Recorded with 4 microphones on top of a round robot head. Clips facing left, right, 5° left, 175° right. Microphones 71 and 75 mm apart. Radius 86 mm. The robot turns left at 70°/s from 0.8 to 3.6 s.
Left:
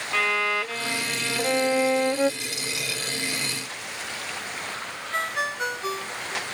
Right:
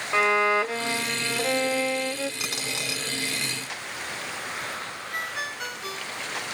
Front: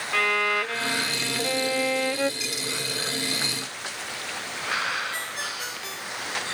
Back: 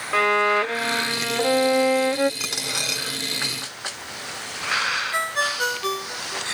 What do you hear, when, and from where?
0.1 s a violin: 140° right; by 2.3 s 115° left
2.4 s a dropped coin: 125° right; by 3.0 s 170° right
5.1 s a ringtone: 155° left